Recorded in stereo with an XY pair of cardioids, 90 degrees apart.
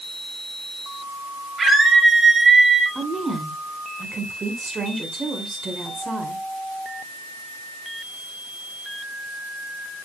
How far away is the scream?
About 8 m.